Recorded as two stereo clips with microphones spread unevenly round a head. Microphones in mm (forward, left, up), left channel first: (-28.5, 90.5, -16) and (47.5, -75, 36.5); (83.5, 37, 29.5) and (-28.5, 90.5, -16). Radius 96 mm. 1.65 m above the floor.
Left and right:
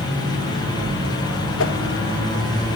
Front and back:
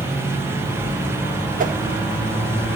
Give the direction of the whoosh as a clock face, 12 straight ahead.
7 o'clock.